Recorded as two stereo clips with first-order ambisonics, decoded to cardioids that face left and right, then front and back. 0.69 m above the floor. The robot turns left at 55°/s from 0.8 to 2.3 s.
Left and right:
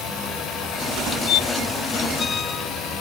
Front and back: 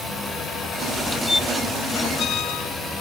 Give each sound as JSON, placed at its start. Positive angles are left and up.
{"t": 1.3, "sound": "a squeak", "azimuth_deg": 85, "distance_m": 0.5}